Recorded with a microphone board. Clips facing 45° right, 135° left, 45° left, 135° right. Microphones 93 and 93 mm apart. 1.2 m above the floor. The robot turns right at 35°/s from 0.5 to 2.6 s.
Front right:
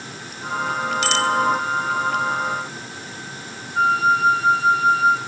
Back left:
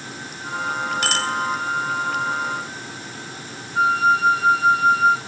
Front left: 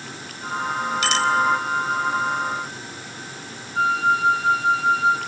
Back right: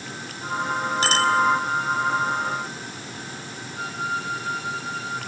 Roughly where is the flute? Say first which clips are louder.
Even, front left 10 dB; ahead left.